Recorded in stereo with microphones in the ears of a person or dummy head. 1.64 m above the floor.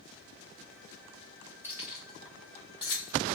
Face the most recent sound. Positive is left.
turn(degrees=40)  # may be behind; listen again after turning